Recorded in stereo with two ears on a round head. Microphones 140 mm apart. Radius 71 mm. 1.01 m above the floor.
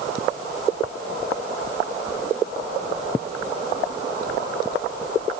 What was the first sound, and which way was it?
Only background noise.